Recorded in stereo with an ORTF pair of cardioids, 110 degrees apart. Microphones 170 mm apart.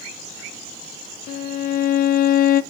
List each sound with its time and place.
1.3 s a violin: 60° left, 0.7 m